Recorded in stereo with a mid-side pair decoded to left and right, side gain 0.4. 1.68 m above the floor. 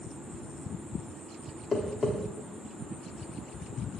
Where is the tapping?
30° left, 1.2 m.